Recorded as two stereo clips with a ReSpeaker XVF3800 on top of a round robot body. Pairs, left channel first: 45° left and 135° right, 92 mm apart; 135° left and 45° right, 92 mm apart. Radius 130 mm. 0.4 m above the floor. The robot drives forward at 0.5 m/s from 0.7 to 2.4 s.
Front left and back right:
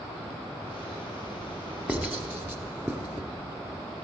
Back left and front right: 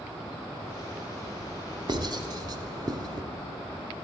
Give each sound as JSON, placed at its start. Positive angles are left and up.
{"t": 1.9, "sound": "writing", "azimuth_deg": -65, "distance_m": 1.5}